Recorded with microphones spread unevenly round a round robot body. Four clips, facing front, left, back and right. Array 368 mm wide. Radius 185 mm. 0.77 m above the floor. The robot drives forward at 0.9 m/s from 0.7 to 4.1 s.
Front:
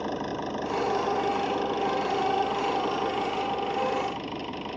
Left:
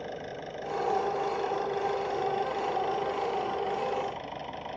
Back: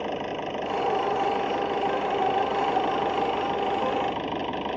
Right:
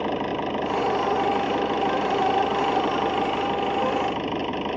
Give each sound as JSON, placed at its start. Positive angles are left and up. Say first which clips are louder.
{"t": 0.0, "sound": "an engine running", "louder": "right 12 dB, back 1 dB", "azimuth_deg": -80}